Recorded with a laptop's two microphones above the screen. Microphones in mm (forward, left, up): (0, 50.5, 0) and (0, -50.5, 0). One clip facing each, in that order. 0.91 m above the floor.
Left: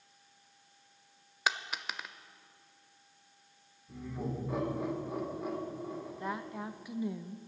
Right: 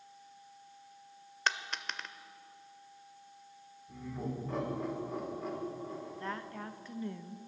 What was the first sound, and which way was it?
A dropped coin, 10° left (ahead or behind).